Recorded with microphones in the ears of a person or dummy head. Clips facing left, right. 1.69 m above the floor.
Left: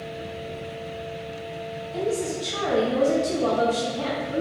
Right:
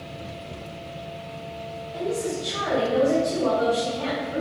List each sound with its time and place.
1.9 s a woman speaking: 65° left (ahead or behind), 2 m